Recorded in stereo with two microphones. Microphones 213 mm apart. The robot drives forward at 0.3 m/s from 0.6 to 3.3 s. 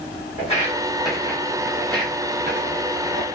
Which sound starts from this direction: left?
Footsteps, at 0.4 s.